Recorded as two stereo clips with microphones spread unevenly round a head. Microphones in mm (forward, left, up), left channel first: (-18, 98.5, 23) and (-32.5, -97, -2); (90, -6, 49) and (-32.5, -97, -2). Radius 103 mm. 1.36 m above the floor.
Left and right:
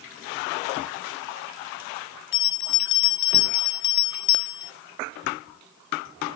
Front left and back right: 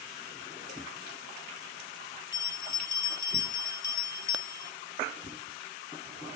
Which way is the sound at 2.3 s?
105° left.